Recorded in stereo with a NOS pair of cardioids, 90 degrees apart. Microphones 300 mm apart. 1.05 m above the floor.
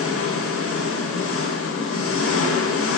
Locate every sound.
0.0 s an engine running: 50° left, 3.5 m